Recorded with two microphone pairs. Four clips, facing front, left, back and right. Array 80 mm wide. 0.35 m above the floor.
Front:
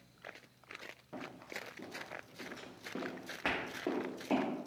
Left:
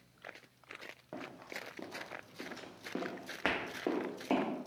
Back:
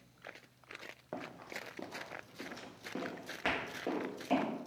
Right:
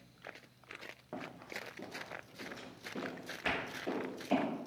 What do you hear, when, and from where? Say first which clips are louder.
1.1 s running footsteps: right 1 dB, back 2 dB; straight behind, 0.8 m; by 4.5 s 80° left, 1.6 m